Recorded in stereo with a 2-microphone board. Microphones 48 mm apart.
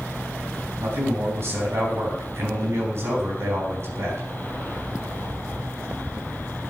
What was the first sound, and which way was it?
A man speaking, 65° right (ahead or behind).